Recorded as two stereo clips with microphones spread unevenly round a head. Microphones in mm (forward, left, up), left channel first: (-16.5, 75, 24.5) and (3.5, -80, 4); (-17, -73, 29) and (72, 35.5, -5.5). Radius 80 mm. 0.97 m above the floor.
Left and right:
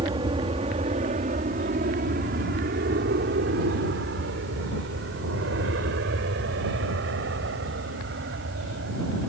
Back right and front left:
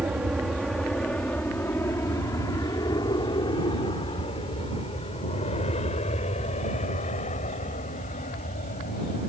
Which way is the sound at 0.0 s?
25° right.